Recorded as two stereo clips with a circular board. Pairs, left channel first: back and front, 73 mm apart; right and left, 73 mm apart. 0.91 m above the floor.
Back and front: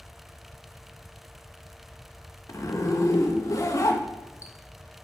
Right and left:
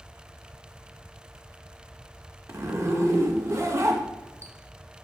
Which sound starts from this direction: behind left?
A zipper, at 2.5 s.